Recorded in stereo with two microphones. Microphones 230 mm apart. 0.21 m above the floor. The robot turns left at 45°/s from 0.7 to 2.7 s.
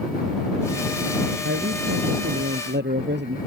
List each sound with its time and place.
1.4 s a man speaking: 70° right; by 3.4 s 130° right